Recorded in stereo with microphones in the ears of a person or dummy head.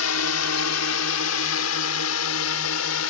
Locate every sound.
0.0 s a drone: 80° left